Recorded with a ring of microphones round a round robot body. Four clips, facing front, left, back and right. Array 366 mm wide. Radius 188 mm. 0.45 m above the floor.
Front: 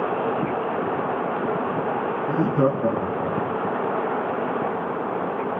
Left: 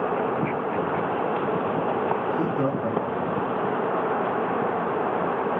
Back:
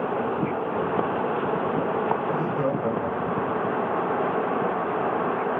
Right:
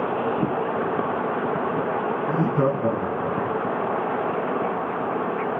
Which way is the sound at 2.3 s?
25° right.